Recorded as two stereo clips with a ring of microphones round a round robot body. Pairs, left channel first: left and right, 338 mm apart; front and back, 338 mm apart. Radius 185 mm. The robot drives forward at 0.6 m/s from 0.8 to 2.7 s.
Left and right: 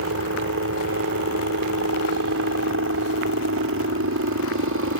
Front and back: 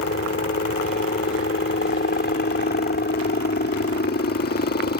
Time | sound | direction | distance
0.0 | a helicopter | 50° right | ?